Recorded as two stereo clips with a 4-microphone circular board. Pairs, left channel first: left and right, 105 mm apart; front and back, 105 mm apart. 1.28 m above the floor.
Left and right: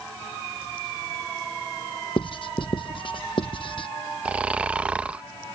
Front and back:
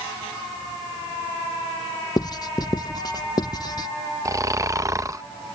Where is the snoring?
160° right.